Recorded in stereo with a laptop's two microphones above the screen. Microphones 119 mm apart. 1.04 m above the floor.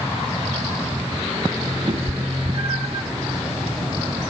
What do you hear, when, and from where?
1.9 s a cat meowing: 55° right (ahead or behind), 0.7 m